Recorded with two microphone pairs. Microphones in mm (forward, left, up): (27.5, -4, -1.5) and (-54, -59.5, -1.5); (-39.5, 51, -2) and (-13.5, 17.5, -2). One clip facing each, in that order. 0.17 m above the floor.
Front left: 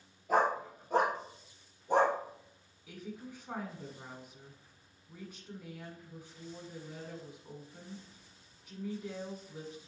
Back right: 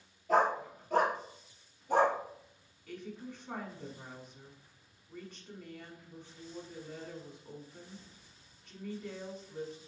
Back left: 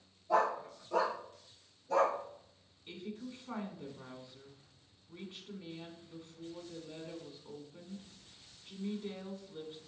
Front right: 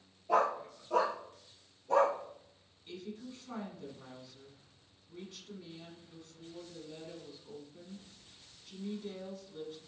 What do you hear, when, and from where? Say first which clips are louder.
0.3 s a dog barking: back right 1 dB, front right 1 dB; 50° right, 1.5 m; by 2.2 s 25° right, 2 m
2.9 s a woman speaking: back right 1 dB, even; 110° left, 1.1 m